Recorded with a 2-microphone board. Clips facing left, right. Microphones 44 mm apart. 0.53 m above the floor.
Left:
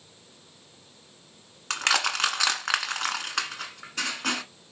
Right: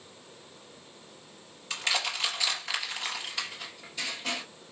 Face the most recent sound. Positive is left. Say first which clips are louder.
# left 5 dB
turn(degrees=80)